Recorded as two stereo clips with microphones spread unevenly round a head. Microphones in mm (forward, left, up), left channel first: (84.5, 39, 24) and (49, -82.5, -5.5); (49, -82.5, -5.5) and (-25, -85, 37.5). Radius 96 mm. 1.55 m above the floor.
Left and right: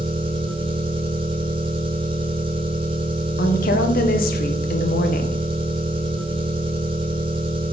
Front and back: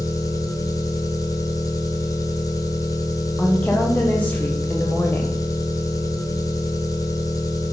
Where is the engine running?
60° right, 1.7 m.